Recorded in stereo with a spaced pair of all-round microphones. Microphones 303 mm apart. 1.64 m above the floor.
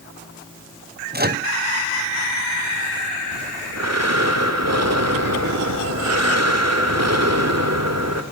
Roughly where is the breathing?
Right.